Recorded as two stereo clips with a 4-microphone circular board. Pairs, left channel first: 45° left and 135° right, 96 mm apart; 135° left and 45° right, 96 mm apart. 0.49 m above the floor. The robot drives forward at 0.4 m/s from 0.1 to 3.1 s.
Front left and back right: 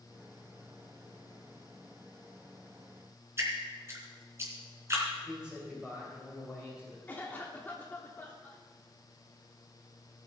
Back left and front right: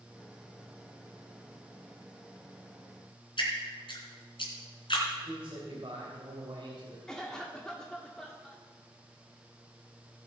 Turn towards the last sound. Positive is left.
turn(degrees=65)